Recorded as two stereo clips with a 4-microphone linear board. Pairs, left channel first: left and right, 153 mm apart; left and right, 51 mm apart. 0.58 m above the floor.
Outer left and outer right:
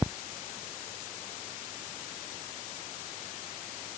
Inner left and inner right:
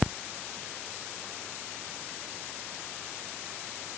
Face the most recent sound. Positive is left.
No sound to turn to.